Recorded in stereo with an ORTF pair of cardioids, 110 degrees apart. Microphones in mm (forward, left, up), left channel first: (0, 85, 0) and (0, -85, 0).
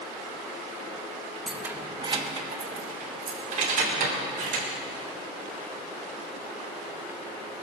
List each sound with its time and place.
1.5 s keys jangling: straight ahead, 1.0 m; by 4.7 s 60° right, 4 m